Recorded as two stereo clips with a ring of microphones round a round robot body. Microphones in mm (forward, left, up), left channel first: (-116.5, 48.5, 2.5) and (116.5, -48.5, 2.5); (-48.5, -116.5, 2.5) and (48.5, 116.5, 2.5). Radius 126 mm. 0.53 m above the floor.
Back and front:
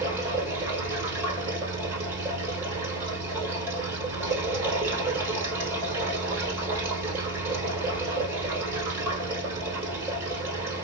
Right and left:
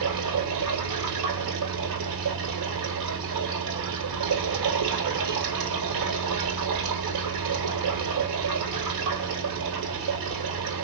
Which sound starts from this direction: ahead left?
Running water, at 0.0 s.